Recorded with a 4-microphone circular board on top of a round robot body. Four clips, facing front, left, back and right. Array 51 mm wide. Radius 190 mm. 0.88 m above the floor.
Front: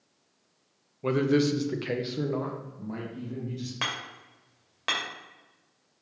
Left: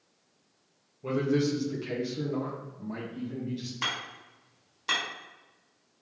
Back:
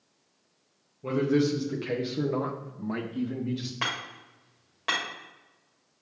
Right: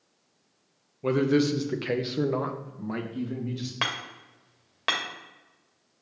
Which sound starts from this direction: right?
Hammering, at 3.8 s.